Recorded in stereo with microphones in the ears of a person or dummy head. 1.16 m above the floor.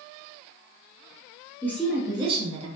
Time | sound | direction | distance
1.6 | a woman speaking | 10° left (ahead or behind) | 0.5 m